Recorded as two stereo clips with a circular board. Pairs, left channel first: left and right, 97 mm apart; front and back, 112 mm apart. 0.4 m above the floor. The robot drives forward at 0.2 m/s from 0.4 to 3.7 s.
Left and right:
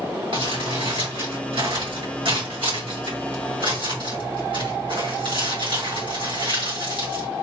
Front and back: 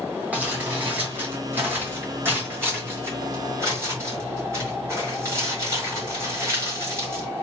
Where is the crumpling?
105° right, 3 m; by 7.3 s 120° right, 3 m.